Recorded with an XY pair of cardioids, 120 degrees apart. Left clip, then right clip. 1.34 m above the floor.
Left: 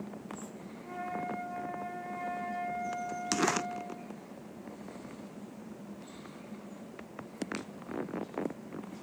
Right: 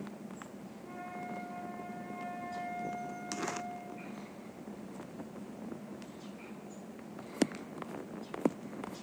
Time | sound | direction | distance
0.8 | a flute | 10° left | 3.5 m